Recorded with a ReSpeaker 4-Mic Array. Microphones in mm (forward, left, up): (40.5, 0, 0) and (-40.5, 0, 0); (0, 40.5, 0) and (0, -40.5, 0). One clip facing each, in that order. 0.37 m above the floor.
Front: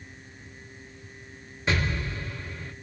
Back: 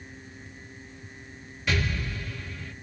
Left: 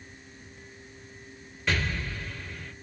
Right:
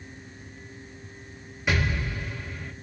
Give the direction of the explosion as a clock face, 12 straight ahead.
1 o'clock.